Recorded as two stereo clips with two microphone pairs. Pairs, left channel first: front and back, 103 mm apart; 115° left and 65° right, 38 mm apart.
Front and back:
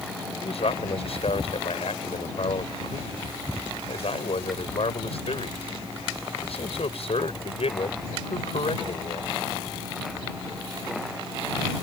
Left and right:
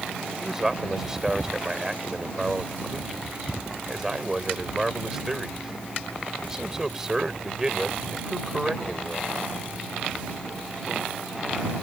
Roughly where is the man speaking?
Ahead.